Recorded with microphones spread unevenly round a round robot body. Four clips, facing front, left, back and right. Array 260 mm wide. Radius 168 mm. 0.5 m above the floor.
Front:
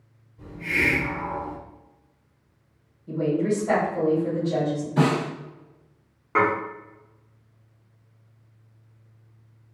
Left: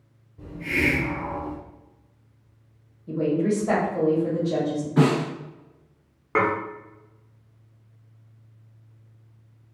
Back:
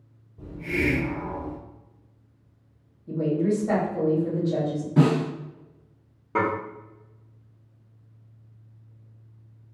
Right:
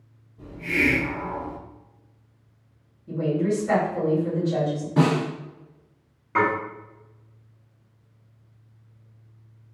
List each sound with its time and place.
0.4 s a hiss: 165° left, 0.8 m
3.1 s a woman speaking: 120° left, 1.1 m
5.0 s a snare drum: 160° right, 0.9 m
6.3 s dishes clattering: 130° left, 0.7 m